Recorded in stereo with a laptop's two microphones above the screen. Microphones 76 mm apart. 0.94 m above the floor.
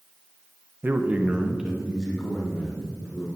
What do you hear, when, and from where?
0.8 s a man speaking: 25° right (ahead or behind), 0.7 m; by 3.3 s centre (ahead or behind), 3.5 m